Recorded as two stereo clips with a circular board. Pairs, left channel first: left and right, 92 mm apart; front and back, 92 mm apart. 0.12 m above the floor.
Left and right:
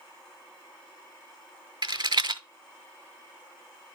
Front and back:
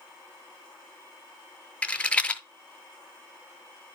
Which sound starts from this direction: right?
A rattle, at 1.8 s.